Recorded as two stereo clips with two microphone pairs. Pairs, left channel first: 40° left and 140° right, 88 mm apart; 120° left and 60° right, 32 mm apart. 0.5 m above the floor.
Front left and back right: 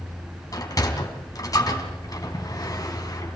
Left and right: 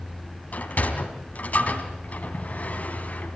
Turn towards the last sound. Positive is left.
turn(degrees=90)